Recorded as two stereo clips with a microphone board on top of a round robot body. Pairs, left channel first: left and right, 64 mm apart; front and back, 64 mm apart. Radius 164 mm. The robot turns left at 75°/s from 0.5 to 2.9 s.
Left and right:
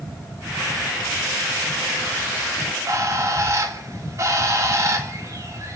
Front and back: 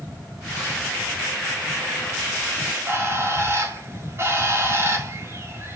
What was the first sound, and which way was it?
A bird, 110° right.